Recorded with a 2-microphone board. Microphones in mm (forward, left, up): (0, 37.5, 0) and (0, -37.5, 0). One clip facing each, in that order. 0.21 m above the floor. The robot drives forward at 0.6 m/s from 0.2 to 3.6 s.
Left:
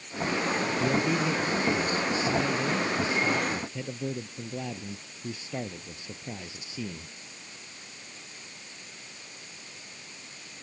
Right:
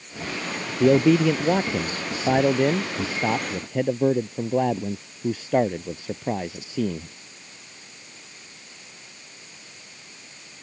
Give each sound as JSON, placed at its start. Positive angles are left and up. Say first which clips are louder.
{"t": 0.8, "sound": "a man speaking", "louder": "right 13 dB", "side_deg": -75}